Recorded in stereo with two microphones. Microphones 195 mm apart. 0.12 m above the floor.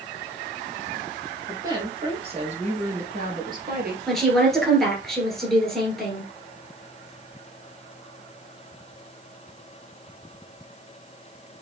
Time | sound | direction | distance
1.5 | a woman speaking | 20° right (ahead or behind) | 2 m
4.1 | a woman speaking | centre (ahead or behind) | 2 m